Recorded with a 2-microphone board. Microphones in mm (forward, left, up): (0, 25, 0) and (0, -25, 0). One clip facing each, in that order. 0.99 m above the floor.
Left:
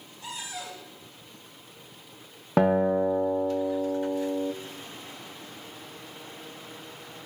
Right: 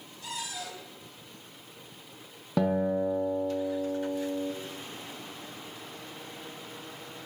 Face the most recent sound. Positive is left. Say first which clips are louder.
# left 5 dB
turn(degrees=45)  # may be behind; listen again after turning